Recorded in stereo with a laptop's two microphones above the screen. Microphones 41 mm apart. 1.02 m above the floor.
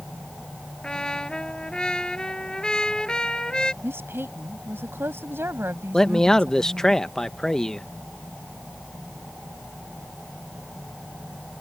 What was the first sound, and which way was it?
A trumpet, 20° left (ahead or behind).